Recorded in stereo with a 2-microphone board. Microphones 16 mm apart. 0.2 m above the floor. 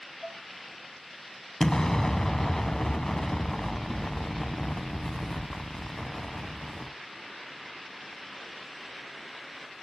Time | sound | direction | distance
0.2 | dishes clattering | 20° left (ahead or behind) | 6 m
1.6 | an explosion | 40° left (ahead or behind) | 0.7 m